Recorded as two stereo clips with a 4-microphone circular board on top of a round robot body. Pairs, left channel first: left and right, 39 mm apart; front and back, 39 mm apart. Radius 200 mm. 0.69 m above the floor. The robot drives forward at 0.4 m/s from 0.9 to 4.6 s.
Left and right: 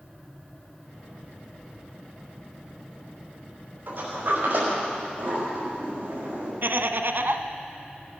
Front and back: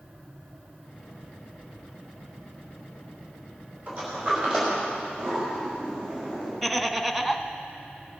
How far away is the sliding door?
About 5 m.